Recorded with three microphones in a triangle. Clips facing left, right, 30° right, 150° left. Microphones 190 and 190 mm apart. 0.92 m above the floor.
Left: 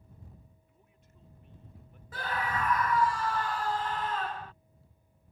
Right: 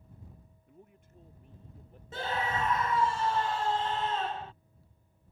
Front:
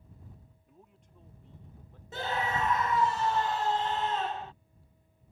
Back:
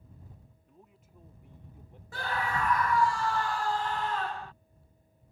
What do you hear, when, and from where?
0.7 s a man speaking: 115° right; by 2.0 s 140° right
2.1 s a scream: 65° right